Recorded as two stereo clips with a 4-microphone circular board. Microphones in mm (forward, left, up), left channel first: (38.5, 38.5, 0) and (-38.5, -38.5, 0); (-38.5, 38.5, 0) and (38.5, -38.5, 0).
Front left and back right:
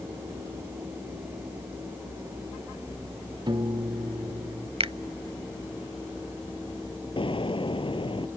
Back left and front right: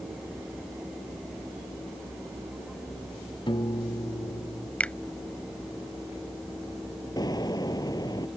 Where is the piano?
Straight behind.